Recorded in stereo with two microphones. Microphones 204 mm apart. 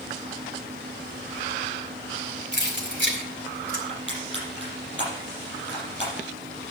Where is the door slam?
No door slam in this recording.